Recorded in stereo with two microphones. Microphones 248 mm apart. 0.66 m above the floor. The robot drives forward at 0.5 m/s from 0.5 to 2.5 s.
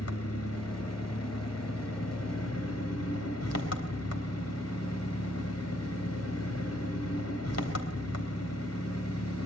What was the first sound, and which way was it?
An engine running, 75° left (ahead or behind).